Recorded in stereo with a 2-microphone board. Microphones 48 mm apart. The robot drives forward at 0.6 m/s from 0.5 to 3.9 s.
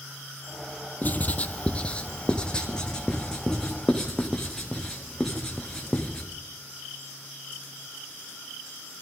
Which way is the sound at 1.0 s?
40° left (ahead or behind).